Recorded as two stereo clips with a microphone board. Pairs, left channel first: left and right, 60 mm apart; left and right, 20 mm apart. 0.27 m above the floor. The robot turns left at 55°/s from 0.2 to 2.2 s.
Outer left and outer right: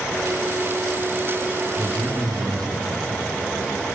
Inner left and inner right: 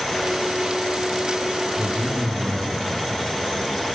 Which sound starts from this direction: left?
A man speaking, at 1.8 s.